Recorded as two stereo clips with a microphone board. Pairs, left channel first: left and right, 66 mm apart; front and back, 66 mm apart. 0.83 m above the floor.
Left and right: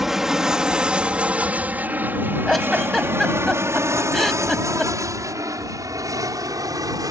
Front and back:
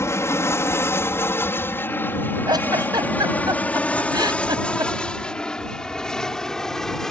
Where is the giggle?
Straight behind.